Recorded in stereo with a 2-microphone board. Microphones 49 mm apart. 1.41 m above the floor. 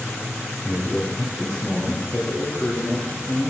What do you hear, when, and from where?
0.7 s a man speaking: centre (ahead or behind), 0.9 m; by 3.5 s 50° left (ahead or behind), 2 m